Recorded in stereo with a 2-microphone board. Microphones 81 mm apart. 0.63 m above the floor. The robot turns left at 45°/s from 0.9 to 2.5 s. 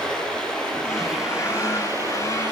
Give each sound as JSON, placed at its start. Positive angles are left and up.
{"t": 0.0, "sound": "running water", "azimuth_deg": 10, "distance_m": 7.0}